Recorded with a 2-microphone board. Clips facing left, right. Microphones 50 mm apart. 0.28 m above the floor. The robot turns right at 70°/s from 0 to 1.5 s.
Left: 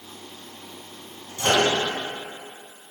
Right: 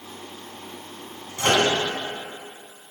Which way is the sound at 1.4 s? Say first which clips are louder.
Even; 60° right (ahead or behind).